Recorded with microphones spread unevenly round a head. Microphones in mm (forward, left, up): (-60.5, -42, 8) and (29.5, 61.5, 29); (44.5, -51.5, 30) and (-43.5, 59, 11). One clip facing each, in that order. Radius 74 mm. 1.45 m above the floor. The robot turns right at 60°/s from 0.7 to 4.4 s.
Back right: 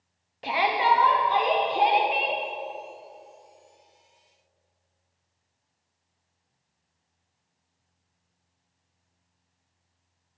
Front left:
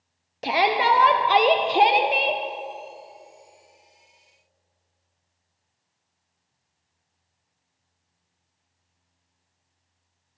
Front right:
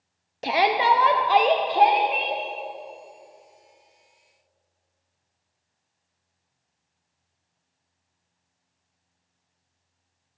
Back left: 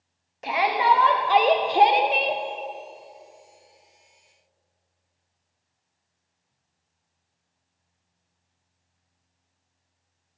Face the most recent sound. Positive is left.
turn(degrees=-135)